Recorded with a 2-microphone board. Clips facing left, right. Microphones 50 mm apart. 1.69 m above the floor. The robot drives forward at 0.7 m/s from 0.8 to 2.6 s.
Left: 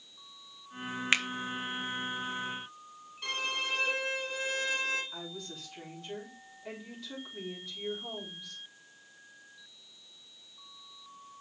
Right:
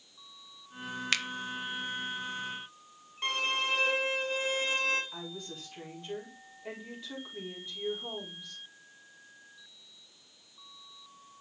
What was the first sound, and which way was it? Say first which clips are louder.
A finger snap: left 4 dB; 25° left (ahead or behind).